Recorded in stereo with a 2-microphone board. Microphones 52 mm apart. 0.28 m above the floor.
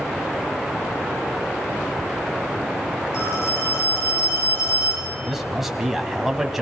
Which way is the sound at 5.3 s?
5° right (ahead or behind).